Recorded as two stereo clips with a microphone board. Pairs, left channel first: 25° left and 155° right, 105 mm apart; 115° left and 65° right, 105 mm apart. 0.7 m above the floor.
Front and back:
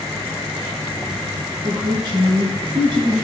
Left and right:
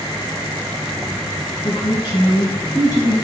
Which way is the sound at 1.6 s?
155° left.